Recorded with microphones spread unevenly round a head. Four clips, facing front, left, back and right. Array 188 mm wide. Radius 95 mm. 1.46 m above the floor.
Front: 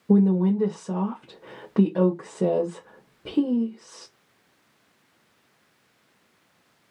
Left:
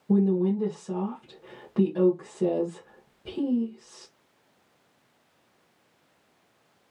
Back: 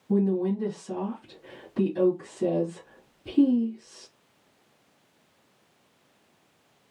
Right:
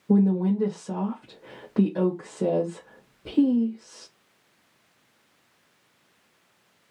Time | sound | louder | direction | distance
0.1 | a woman speaking | right 2 dB, front 5 dB | 15° right | 1.6 m